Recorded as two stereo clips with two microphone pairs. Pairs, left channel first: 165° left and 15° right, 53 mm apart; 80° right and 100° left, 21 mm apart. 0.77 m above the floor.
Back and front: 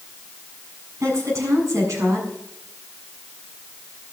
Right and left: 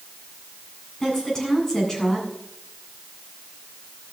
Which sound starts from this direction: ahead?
A woman speaking, at 1.0 s.